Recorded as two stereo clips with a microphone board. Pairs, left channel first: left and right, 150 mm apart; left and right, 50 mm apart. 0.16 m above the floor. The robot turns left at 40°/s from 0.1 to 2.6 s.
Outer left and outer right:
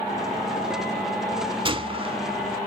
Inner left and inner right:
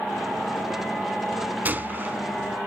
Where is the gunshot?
30° right (ahead or behind), 0.7 m; by 2.2 s 35° right (ahead or behind), 0.7 m.